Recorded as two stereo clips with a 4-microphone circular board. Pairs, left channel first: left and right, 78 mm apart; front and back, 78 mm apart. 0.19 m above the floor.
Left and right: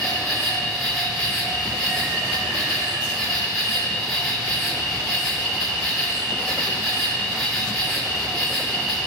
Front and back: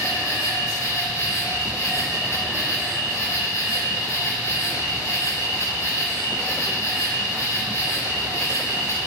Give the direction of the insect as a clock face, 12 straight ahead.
12 o'clock.